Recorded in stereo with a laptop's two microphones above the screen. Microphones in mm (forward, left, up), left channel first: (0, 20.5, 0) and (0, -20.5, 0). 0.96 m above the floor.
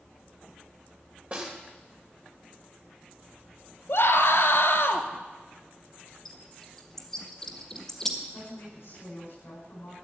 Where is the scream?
75° left (ahead or behind), 1.8 m.